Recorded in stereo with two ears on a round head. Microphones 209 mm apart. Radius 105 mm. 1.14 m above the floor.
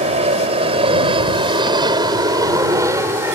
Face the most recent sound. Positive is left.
turn(degrees=-10)  # may be behind; listen again after turning